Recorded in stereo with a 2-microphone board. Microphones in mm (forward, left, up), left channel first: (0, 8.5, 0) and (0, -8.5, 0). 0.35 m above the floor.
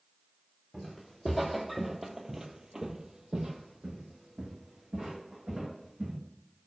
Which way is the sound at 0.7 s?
10° left (ahead or behind).